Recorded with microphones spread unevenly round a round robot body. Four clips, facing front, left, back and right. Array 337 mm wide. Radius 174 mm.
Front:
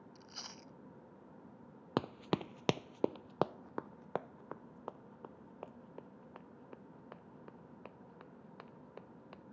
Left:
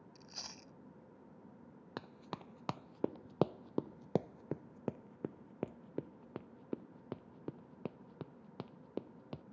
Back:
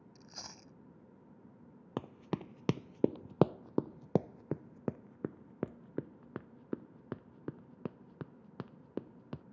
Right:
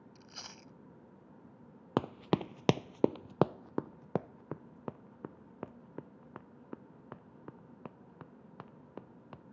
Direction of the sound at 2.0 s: 55° right.